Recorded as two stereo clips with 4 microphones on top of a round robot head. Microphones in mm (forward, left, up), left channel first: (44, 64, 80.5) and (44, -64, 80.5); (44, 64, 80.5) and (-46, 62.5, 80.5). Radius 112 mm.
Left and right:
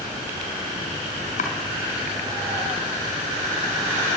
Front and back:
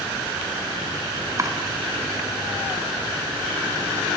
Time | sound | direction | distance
1.4 | chopping | 130° left | 4 m